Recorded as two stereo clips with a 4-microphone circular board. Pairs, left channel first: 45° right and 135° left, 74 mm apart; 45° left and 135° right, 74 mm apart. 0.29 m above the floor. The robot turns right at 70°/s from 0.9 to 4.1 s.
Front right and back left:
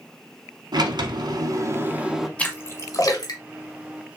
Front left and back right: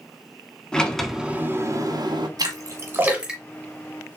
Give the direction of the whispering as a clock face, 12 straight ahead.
No whispering in this recording.